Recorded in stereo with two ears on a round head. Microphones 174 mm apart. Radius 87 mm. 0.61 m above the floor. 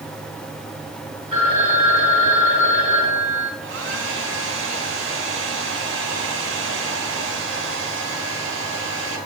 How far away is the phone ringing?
About 6 m.